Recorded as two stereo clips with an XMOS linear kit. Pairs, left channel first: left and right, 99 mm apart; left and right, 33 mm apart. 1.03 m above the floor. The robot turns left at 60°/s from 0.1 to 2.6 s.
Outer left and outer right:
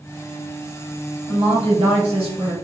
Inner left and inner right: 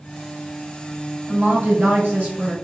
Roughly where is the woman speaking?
Ahead right.